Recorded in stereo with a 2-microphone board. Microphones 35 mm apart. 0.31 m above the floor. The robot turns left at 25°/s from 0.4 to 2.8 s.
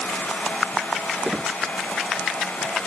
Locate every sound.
1.2 s a squeak: 25° right (ahead or behind); by 1.6 s 15° right (ahead or behind)